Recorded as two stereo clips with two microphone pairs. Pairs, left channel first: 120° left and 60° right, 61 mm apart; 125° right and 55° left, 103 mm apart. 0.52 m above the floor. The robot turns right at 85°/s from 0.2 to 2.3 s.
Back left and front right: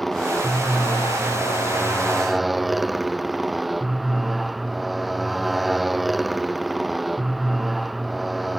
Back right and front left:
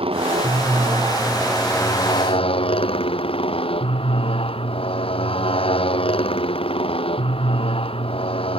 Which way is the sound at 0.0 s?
30° left.